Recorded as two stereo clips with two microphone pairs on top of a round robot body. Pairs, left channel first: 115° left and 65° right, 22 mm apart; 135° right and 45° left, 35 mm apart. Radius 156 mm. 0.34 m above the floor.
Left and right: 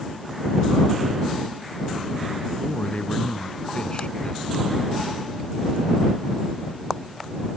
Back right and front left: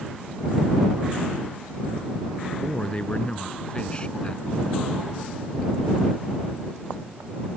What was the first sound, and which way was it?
A man speaking, 160° left.